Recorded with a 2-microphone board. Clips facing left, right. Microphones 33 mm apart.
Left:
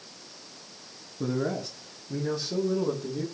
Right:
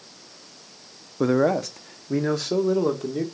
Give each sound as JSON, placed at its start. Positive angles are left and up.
{"t": 1.2, "sound": "a man speaking", "side_deg": -75, "distance_m": 0.9}